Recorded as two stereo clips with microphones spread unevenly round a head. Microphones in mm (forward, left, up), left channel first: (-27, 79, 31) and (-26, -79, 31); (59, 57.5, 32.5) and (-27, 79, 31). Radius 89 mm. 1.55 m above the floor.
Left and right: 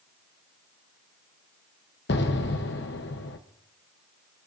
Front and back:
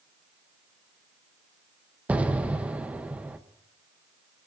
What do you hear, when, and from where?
2.1 s an explosion: 90° left, 1.0 m